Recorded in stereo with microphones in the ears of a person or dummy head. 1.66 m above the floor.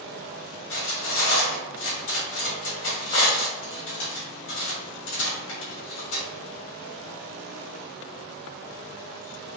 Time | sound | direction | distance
0.7 | cutlery clinking | 55° left (ahead or behind) | 1.7 m